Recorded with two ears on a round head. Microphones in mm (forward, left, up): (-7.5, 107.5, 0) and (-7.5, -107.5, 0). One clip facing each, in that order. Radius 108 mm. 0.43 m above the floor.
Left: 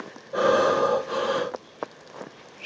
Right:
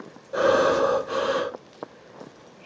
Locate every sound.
0.3 s breathing: 5° right (ahead or behind), 1.1 m